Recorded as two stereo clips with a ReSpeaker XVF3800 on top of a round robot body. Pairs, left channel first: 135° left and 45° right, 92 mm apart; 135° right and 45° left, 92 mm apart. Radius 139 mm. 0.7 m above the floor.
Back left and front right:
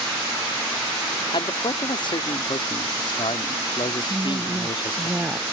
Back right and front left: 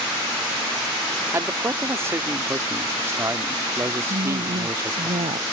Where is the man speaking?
105° left.